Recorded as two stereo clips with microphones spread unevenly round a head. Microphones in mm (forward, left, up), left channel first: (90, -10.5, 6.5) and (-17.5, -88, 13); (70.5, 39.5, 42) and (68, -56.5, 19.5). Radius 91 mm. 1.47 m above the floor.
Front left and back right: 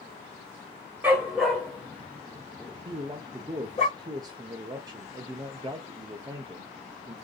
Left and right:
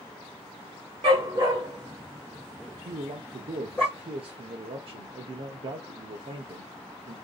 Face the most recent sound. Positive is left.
turn(degrees=-80)